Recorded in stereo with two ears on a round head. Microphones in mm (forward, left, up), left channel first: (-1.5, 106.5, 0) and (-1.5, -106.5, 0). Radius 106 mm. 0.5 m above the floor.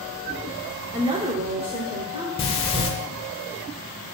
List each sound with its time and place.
0.9 s a woman speaking: 25° right (ahead or behind), 0.9 m; by 2.3 s 20° right (ahead or behind), 1.6 m
2.4 s breathing: 25° left (ahead or behind), 1.2 m